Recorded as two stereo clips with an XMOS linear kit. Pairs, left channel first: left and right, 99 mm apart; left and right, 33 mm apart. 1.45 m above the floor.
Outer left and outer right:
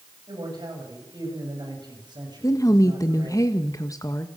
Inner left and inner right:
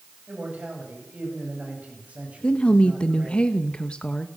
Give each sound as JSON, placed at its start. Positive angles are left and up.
{"t": 0.3, "sound": "a man speaking", "side_deg": -50, "distance_m": 7.5}
{"t": 2.4, "sound": "a woman speaking", "side_deg": 35, "distance_m": 1.3}